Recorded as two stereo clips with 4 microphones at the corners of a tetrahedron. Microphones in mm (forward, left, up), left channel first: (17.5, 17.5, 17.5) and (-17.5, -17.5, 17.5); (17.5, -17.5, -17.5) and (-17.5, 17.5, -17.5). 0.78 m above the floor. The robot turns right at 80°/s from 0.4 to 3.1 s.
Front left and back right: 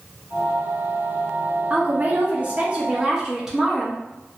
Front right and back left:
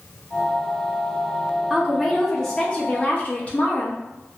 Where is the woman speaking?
170° right, 0.6 m; by 4.0 s 60° right, 0.6 m.